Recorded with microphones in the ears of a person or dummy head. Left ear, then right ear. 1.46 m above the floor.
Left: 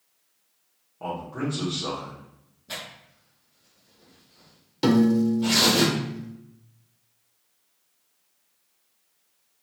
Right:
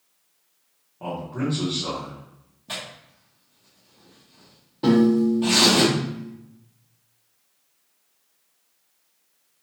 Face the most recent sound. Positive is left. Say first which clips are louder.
# right 2 dB
turn(degrees=70)  # may be behind; listen again after turning